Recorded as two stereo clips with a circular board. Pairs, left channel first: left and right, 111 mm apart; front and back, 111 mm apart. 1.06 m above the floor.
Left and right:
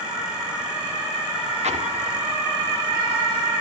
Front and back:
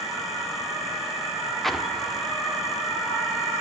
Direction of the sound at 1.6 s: 90° right.